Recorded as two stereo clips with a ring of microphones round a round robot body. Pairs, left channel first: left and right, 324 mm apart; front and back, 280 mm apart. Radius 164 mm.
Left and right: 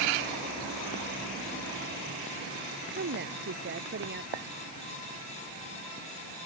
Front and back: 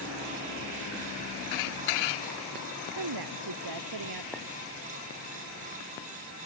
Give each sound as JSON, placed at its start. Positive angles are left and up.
{"t": 2.9, "sound": "a woman speaking", "azimuth_deg": -150}
{"t": 4.3, "sound": "a clink", "azimuth_deg": -90}